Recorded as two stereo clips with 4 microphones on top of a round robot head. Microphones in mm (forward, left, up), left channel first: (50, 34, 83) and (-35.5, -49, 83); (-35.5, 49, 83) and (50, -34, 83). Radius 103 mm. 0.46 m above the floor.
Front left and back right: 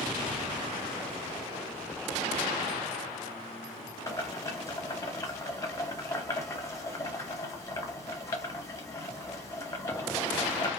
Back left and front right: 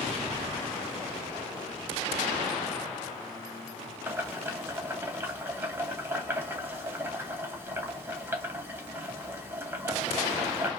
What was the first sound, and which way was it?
Boiling, 10° left.